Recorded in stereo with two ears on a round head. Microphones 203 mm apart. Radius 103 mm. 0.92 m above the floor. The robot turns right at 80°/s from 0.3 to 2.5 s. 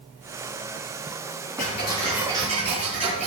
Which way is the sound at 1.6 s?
135° left.